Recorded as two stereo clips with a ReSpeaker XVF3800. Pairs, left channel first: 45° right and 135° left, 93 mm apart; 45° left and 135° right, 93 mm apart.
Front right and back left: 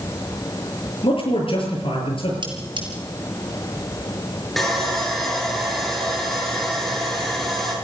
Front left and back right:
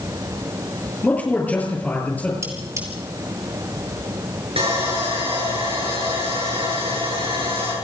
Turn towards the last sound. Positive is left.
turn(degrees=-135)